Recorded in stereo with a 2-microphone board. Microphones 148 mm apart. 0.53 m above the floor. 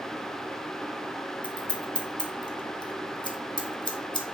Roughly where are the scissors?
Left.